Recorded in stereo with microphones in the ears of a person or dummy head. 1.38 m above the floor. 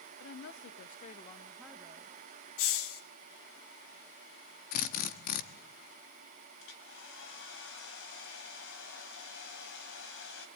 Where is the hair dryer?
80° left, 4 m.